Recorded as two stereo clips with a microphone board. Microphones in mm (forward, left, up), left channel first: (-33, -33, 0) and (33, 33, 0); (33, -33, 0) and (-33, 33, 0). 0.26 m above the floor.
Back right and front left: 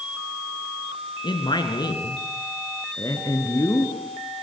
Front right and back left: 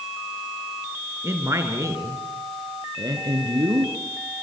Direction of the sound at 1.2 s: 165° right.